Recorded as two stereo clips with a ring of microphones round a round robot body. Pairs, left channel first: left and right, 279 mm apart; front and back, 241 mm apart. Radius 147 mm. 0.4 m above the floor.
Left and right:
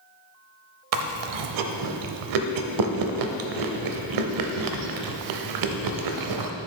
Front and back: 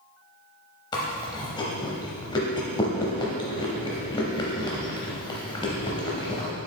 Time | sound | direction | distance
0.9 | chewing | 75° right | 0.6 m